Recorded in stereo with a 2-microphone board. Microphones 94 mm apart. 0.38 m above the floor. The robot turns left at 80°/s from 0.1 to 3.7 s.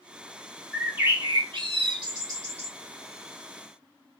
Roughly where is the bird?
Ahead.